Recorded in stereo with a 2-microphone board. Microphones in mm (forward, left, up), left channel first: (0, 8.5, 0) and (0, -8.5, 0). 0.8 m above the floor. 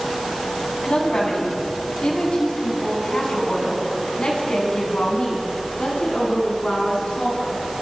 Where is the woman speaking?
55° left (ahead or behind), 7 m; by 7.6 s 85° left, 9.5 m.